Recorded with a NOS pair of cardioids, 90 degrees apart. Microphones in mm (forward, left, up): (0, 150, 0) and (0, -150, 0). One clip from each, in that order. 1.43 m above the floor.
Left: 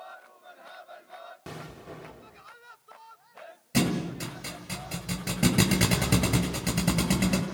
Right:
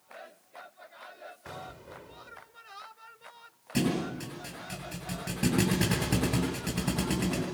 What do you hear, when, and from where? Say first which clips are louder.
1.5 s an explosion: even; 60° left, 1.7 m
3.7 s a thud: left 2 dB; 65° left, 7.5 m